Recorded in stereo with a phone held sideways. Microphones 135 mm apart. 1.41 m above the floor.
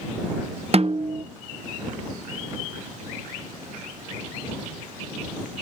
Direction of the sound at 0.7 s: 45° right (ahead or behind).